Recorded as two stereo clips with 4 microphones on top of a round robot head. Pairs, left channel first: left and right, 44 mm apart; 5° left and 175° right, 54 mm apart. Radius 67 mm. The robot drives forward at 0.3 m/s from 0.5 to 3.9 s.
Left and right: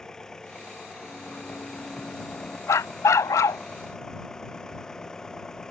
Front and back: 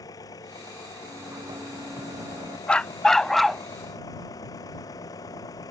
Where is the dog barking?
80° left; by 3.6 s 95° left.